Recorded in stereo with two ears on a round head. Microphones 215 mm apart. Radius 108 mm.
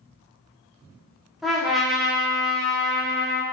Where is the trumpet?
Centre (ahead or behind), 0.7 m.